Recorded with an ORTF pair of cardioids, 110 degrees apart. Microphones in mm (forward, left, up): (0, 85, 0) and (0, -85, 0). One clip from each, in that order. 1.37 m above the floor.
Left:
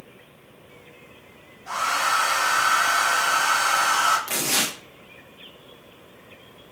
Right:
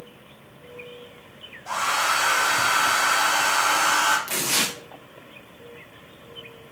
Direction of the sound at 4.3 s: 10° left.